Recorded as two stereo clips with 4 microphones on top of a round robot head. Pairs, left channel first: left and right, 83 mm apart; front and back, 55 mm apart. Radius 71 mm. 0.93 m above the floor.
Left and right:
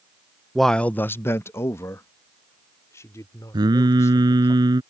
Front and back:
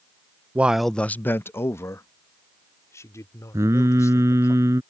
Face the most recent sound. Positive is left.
turn(degrees=-130)